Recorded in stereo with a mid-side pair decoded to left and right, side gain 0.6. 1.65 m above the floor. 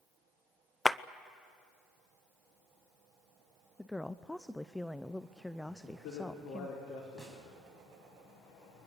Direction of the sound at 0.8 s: 10° left.